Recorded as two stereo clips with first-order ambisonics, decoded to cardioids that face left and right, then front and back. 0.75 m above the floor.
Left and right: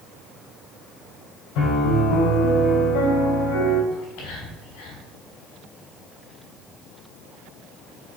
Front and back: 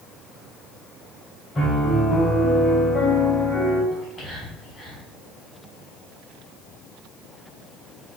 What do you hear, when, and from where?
1.6 s a piano: 75° left, 3 m
3.9 s whispering: 75° left, 3.5 m